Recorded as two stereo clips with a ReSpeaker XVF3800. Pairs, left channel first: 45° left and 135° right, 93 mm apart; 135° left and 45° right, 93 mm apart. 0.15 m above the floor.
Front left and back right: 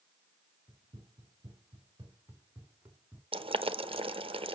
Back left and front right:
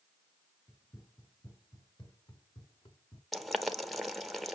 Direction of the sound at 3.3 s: 135° right.